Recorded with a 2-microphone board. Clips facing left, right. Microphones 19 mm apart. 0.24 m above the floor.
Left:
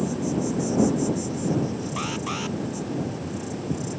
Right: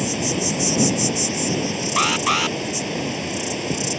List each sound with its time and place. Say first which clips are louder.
0.0 s an insect: right 3 dB; 75° right (ahead or behind)
2.0 s an alarm: right 13 dB; 50° right (ahead or behind)